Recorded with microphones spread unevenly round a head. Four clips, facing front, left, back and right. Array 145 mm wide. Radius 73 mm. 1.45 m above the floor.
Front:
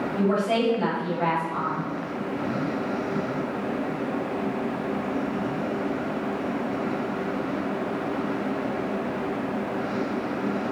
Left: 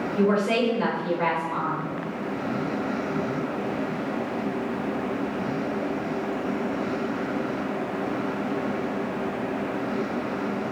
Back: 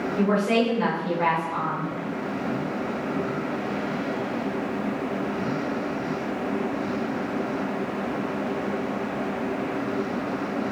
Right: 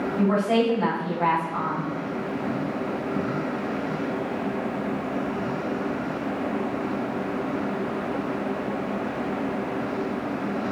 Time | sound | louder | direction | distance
0.2 | a woman speaking | even, back 1 dB | 120° left | 6.5 m